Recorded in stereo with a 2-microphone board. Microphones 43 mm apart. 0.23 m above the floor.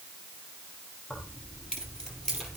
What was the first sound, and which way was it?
Keys jangling, 25° left (ahead or behind).